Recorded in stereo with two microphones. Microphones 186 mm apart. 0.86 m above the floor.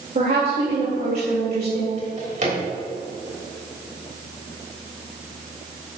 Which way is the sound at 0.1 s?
55° right (ahead or behind).